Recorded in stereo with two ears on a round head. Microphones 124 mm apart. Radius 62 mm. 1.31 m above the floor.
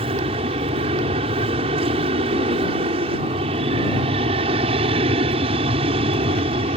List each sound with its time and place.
0.0 s an aircraft: 40° right (ahead or behind)